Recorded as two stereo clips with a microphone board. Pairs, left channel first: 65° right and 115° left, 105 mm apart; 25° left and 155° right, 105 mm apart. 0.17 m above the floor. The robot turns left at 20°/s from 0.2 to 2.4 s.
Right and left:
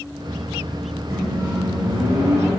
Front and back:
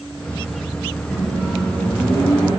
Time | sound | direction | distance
1.1 | a microwave | 120° left | 1.2 m